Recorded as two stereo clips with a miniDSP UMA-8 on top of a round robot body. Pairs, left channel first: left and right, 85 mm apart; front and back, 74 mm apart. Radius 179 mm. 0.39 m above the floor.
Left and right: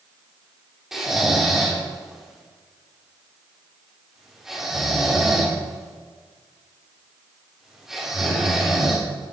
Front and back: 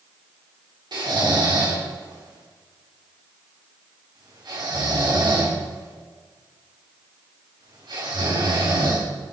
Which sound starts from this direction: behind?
Snoring, at 0.9 s.